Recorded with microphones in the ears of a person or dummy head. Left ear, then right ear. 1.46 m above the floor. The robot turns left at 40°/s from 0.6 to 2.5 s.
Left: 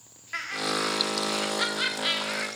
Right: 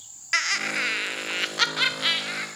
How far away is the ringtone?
No ringtone in this recording.